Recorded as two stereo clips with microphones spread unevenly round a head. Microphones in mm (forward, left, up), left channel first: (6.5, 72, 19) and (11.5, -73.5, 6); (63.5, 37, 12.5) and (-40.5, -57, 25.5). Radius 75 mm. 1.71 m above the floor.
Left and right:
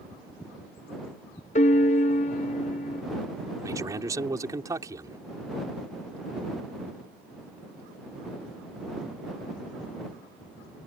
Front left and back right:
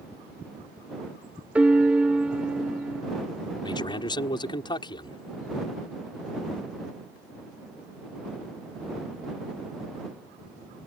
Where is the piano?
140° left.